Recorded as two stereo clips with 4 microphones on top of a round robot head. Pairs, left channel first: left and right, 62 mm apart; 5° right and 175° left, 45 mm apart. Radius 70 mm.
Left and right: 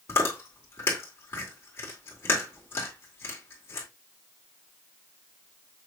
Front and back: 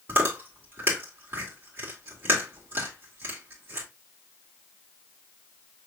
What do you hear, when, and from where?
0.1 s chewing: 140° left, 2 m